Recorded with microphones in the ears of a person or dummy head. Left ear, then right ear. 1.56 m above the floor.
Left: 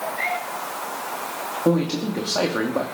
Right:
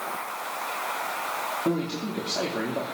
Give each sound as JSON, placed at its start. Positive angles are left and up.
{"t": 1.6, "sound": "a man speaking", "side_deg": 30, "distance_m": 2.5}